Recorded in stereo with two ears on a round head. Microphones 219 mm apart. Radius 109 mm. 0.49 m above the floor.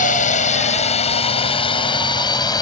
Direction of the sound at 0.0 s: 30° left (ahead or behind).